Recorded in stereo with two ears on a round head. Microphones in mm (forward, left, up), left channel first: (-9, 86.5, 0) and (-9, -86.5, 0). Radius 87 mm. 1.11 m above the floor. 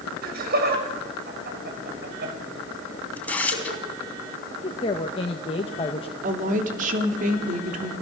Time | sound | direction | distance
0.2 | laughter | 55° right (ahead or behind) | 6.5 m
3.2 | tearing paper | 10° left (ahead or behind) | 3 m
4.6 | a woman speaking | 30° left (ahead or behind) | 1.4 m
6.2 | a woman speaking | 45° right (ahead or behind) | 3 m